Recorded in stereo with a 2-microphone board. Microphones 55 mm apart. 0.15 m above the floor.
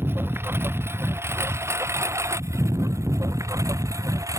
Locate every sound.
0.0 s a lawn mower: 45° right (ahead or behind); by 4.4 s 85° right